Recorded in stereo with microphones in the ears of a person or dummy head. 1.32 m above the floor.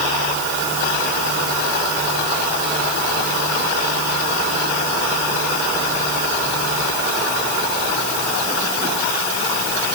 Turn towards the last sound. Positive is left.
No sound to turn to.